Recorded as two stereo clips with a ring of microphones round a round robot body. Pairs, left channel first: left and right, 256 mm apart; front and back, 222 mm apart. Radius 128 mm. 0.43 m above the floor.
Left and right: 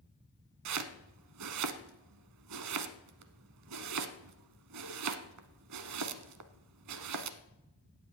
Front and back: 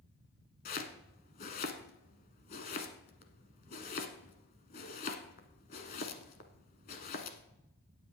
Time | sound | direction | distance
0.7 | chopping | 60° right | 0.9 m